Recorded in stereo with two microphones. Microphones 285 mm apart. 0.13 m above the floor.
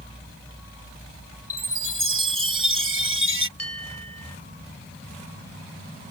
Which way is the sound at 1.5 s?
50° right (ahead or behind).